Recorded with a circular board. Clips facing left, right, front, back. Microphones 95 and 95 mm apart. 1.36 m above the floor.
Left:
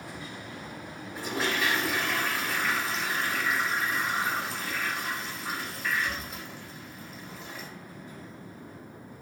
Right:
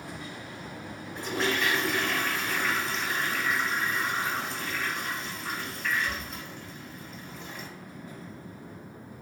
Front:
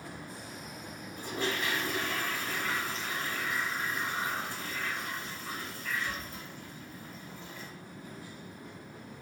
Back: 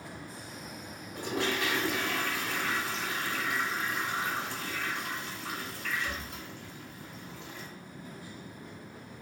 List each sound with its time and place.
1.1 s a toilet flushing: 175° left, 0.6 m